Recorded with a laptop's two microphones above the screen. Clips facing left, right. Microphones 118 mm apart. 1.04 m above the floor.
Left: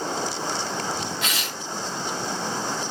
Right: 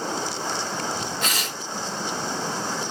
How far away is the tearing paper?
About 3.5 m.